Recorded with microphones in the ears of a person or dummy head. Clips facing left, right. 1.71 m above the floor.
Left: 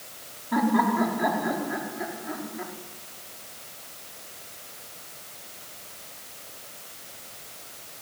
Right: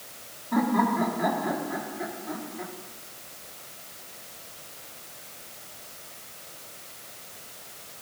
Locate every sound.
0.5 s laughter: 10° left (ahead or behind), 5 m